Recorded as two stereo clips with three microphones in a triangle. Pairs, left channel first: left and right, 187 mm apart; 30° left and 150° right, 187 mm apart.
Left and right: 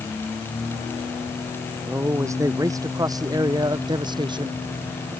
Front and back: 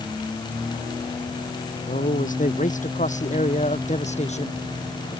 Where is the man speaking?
15° right; by 5.2 s 25° right.